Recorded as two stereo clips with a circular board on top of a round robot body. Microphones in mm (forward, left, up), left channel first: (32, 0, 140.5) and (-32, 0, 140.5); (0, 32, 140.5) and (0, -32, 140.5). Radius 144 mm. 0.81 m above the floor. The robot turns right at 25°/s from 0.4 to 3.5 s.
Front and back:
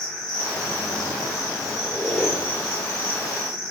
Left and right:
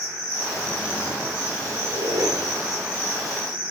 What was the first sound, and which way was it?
An insect, 10° left.